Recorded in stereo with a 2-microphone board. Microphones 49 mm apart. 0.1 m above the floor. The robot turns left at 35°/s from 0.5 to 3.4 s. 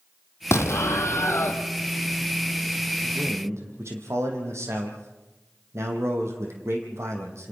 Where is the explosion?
100° left, 1.4 m; by 1.6 s 60° left, 1.4 m.